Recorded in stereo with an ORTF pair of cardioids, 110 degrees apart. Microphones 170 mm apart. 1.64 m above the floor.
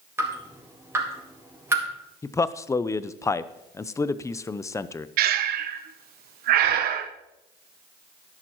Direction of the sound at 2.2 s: 20° left.